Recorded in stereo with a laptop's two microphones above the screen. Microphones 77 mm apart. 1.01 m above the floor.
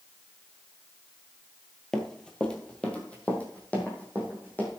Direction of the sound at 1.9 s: 5° left (ahead or behind).